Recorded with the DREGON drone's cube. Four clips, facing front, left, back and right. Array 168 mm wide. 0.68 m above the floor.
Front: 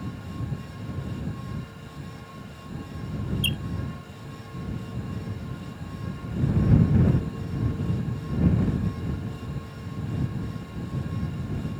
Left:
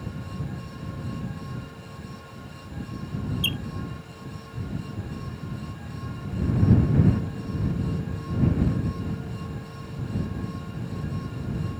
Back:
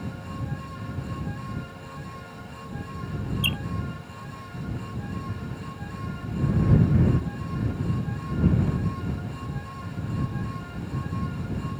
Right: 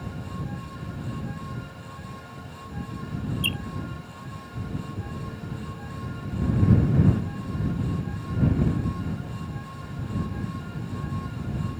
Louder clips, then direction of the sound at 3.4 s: Even, back 1 dB; 170° left.